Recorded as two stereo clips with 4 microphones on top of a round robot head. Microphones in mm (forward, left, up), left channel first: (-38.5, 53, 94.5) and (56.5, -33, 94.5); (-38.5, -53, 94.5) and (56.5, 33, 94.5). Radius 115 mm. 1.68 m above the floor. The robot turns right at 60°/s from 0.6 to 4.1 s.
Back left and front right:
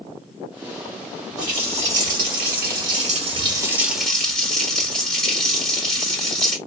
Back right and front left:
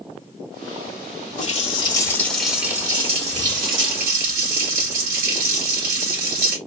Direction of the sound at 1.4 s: 110° right.